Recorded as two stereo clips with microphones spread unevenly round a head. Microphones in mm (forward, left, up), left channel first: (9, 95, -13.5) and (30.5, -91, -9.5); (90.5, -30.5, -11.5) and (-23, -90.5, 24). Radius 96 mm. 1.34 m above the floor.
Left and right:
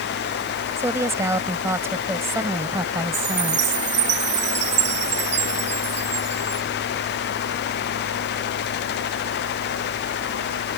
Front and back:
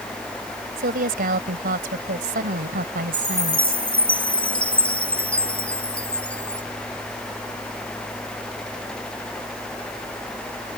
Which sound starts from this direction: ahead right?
A chime, at 3.1 s.